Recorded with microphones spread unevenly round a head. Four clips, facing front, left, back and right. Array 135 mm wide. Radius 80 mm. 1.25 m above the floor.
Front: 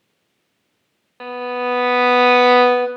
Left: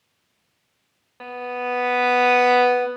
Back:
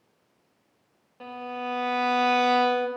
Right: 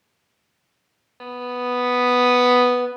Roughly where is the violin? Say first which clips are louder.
Right 1 dB, front 11 dB; ahead.